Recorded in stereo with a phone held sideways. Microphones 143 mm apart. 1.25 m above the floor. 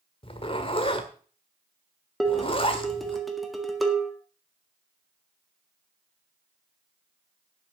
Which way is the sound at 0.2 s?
40° left (ahead or behind).